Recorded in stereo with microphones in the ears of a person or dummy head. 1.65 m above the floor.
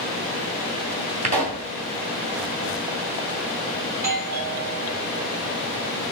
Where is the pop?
35° right (ahead or behind), 1.9 m.